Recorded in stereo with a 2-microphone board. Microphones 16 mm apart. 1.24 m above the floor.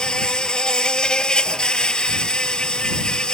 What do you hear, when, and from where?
0.0 s an insect: 50° left (ahead or behind)